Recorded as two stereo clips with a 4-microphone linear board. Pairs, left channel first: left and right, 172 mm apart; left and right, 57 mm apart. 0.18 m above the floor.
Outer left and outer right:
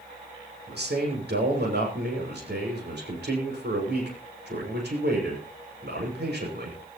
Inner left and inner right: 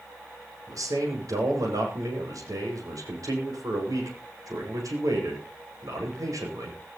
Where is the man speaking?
80° right, 8.5 m.